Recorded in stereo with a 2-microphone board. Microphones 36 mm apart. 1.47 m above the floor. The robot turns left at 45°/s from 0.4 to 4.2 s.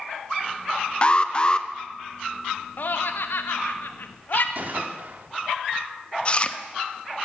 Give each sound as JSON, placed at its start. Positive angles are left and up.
{"t": 1.0, "sound": "an alarm", "side_deg": 30, "distance_m": 0.7}
{"t": 2.8, "sound": "laughter", "side_deg": 55, "distance_m": 0.9}
{"t": 4.5, "sound": "a gunshot", "side_deg": -50, "distance_m": 1.4}
{"t": 6.2, "sound": "chewing", "side_deg": 30, "distance_m": 0.7}